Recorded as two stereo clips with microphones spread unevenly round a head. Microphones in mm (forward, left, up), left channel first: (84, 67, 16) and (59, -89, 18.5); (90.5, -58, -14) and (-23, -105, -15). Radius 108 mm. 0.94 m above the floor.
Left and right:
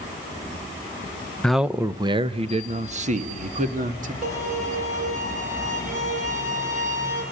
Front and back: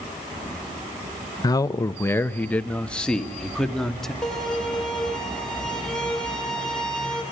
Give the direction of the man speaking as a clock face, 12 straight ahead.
12 o'clock.